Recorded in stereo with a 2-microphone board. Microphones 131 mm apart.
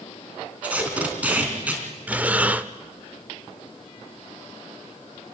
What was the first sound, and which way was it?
Tape being pulled, 10° right (ahead or behind).